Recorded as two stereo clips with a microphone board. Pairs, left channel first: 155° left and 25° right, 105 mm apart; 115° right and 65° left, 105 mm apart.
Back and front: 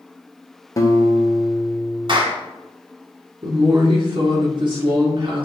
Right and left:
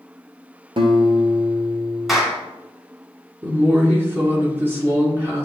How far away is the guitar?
About 1.3 m.